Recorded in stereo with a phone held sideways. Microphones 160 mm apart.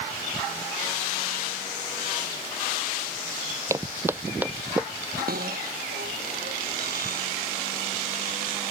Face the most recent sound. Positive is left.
turn(degrees=-70)  # may be behind; listen again after turning